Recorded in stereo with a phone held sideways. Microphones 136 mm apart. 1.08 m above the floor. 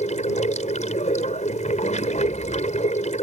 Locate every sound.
0.0 s running water: 60° left (ahead or behind)